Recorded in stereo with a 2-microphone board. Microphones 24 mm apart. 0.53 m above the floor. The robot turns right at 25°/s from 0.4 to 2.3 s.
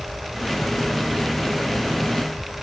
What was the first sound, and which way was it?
Only background noise.